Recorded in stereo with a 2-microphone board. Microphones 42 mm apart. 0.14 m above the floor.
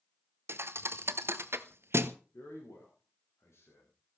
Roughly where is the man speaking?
Left.